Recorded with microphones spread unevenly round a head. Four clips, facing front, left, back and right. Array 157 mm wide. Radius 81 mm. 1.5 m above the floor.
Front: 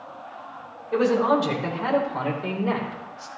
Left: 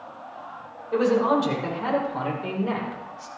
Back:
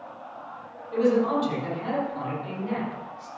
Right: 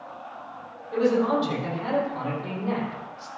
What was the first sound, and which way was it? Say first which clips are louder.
A man speaking: left 2 dB, front 2 dB; 30° left.